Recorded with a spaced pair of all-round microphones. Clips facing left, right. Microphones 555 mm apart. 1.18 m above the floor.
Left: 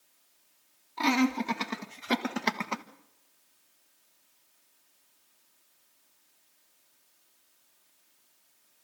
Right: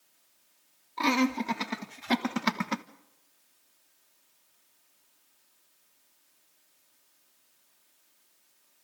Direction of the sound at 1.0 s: 5° left (ahead or behind).